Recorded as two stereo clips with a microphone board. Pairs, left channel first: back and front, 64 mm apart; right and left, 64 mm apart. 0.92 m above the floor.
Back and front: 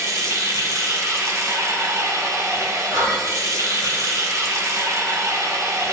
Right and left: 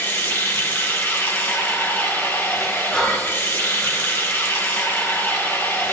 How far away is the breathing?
About 3 m.